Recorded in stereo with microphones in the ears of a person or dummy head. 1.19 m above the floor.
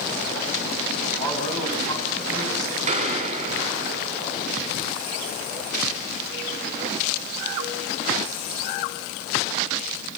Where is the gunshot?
45° right (ahead or behind), 2 m.